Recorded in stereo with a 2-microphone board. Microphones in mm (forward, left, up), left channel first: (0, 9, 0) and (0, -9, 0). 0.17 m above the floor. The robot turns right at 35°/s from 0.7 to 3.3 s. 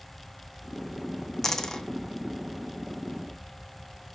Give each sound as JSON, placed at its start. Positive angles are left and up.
{"t": 1.4, "sound": "a dropped coin", "side_deg": 25, "distance_m": 0.5}